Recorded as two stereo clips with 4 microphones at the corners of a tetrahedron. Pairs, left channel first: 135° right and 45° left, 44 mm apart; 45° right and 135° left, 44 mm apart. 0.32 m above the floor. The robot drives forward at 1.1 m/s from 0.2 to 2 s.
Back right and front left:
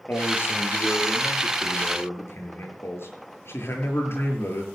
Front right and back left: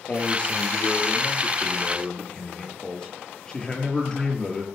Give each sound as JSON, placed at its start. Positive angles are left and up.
{"t": 0.1, "sound": "a man speaking", "azimuth_deg": -100, "distance_m": 6.5}